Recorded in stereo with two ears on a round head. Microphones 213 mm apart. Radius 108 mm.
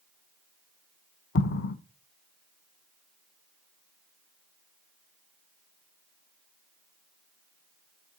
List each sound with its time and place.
1.4 s an explosion: 50° left (ahead or behind), 0.8 m